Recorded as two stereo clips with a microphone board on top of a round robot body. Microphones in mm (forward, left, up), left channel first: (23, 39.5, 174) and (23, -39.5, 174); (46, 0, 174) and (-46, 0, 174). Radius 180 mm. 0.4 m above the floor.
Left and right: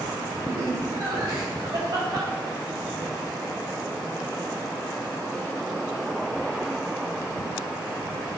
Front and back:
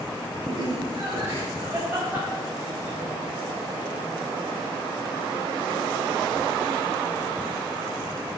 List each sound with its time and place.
0.5 s laughter: 135° right, 2.5 m; by 6.0 s 90° right, 7 m